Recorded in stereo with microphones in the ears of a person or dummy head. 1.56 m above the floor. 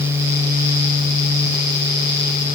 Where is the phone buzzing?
I don't hear a phone buzzing.